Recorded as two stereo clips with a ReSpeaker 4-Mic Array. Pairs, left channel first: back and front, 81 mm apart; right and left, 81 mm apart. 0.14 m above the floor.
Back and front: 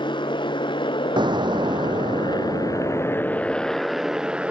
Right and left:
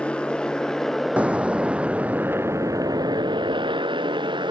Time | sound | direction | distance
0.0 | a motorcycle | 165° right | ?
1.2 | an explosion | 15° left | ?